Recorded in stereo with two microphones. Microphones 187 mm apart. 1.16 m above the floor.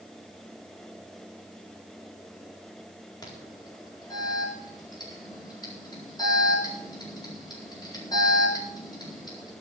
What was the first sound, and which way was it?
An alarm, 20° left (ahead or behind).